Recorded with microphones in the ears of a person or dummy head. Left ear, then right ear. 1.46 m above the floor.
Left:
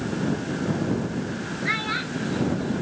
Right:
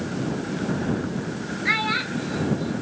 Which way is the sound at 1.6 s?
20° right (ahead or behind).